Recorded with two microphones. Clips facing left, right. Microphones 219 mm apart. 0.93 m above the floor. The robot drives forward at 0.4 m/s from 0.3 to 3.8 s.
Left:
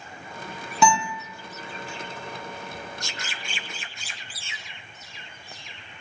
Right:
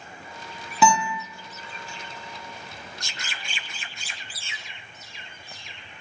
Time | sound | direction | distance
0.8 | a guitar | centre (ahead or behind) | 0.9 m